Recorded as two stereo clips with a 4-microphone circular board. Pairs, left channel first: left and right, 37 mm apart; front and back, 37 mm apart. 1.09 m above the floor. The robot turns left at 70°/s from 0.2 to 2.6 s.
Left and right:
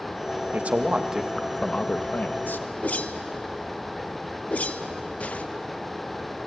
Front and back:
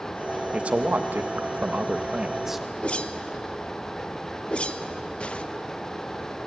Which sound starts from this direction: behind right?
A man speaking, at 0.5 s.